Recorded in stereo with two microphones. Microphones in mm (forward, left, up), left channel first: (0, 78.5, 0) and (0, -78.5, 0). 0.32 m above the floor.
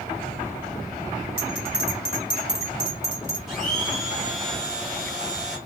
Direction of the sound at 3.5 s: 5° right (ahead or behind).